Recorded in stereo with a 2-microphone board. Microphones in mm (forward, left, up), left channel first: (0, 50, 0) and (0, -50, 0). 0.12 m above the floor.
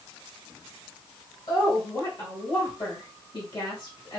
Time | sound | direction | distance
1.5 | a woman speaking | 45° left (ahead or behind) | 2.5 m